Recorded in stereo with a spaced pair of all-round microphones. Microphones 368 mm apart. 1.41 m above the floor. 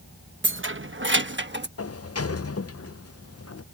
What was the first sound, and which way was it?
Keys jangling, 35° right (ahead or behind).